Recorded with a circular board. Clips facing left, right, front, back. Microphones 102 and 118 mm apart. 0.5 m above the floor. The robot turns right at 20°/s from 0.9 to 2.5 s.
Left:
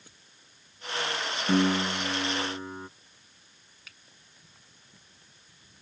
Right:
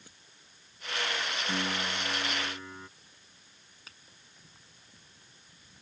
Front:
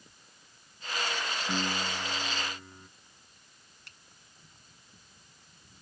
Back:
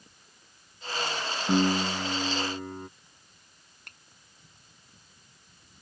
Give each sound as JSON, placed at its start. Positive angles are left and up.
{"t": 1.5, "sound": "a piano", "azimuth_deg": 130}
{"t": 3.9, "sound": "a finger snap", "azimuth_deg": -145}